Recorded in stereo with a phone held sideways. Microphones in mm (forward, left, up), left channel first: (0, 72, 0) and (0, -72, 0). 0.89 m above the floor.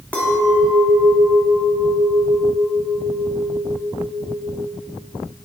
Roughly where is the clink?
Centre.